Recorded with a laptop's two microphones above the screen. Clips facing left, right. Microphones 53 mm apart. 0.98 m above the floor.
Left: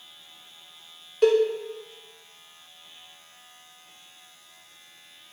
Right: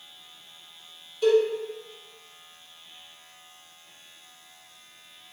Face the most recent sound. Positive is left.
turn(degrees=60)  # may be behind; listen again after turning